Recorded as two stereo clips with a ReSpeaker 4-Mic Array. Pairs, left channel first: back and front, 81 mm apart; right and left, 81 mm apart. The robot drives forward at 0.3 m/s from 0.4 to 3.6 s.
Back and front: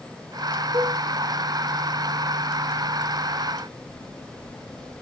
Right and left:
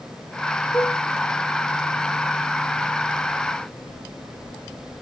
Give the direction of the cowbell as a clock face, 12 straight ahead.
1 o'clock.